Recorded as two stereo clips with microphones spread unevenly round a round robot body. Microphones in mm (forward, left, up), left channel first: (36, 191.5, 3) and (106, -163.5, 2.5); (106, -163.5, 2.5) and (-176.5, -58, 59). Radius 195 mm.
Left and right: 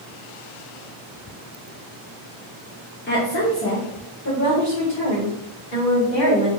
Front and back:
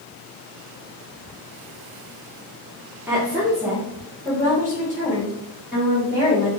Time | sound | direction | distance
3.1 | a woman speaking | 60° left | 1.2 m